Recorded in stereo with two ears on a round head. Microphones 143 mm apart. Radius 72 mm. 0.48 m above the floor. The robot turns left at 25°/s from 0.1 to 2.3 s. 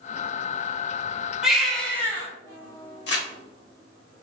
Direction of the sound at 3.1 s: 70° left (ahead or behind).